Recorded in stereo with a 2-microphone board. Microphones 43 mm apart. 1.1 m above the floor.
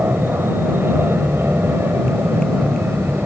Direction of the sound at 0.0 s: 70° right (ahead or behind).